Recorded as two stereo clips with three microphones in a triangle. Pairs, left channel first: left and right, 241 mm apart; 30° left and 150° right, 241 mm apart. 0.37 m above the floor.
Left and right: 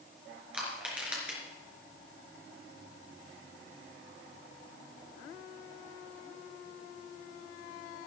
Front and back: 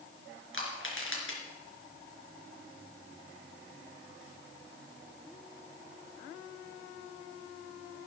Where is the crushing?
5° right, 3.5 m.